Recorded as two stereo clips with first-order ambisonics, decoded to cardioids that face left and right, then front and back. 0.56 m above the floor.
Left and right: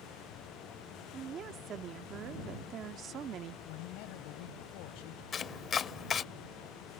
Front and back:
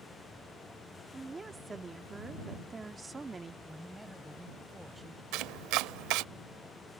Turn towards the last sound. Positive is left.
turn(degrees=155)